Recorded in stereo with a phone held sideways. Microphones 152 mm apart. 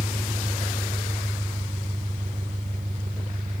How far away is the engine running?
About 1.8 m.